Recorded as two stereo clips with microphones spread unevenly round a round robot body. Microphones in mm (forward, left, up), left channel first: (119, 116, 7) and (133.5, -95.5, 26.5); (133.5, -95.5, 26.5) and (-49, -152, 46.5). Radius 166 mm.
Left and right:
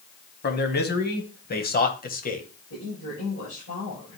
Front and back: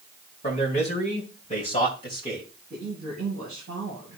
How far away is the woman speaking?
About 7.5 m.